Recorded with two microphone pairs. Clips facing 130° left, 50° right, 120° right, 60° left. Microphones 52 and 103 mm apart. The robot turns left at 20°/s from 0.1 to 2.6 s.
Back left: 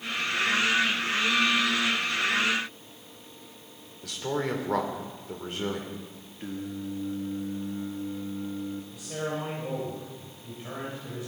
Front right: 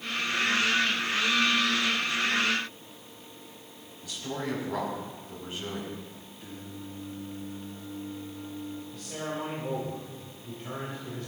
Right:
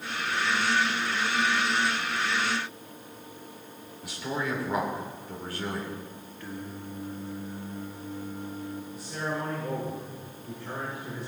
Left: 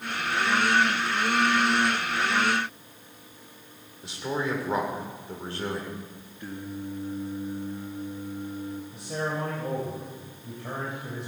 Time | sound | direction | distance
4.0 | a man speaking | 125° left | 2 m
6.4 | singing | 130° left | 1.3 m
8.9 | a man speaking | 50° left | 3.5 m